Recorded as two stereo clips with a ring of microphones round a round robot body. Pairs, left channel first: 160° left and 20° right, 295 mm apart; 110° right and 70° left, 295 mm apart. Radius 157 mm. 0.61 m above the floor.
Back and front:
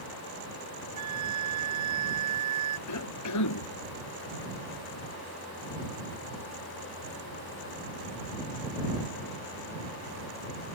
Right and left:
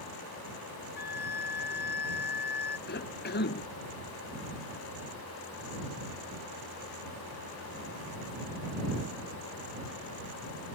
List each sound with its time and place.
1.0 s a flute: 55° right
2.9 s a cough: 170° right